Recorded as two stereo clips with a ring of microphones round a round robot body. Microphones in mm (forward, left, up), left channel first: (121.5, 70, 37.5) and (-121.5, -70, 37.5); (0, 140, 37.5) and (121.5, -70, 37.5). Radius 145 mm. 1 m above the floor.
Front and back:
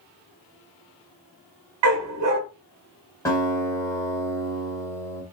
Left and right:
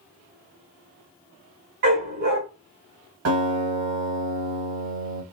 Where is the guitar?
50° right, 1.5 m.